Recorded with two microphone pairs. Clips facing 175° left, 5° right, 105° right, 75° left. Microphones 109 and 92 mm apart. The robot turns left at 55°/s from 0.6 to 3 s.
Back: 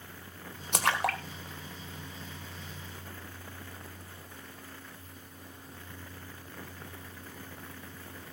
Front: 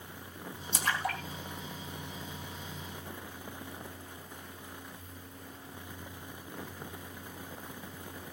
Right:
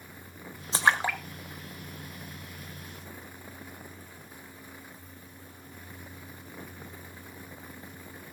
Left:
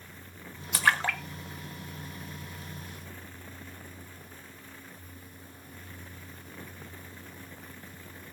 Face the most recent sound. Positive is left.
turn(degrees=70)